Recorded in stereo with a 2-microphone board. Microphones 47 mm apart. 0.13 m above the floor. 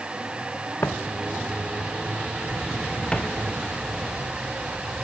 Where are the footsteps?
60° left (ahead or behind), 1.4 m; by 5.0 s 10° left (ahead or behind), 6.5 m.